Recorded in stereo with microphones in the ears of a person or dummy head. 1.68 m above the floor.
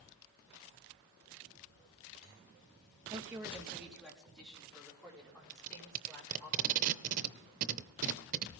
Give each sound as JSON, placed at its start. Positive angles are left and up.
{"t": 3.1, "sound": "a woman speaking", "side_deg": -20, "distance_m": 2.0}
{"t": 5.5, "sound": "tape being pulled", "side_deg": -40, "distance_m": 0.6}